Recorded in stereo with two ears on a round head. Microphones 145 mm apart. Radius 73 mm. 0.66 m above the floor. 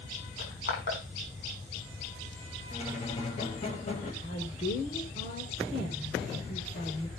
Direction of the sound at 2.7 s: 40° left (ahead or behind).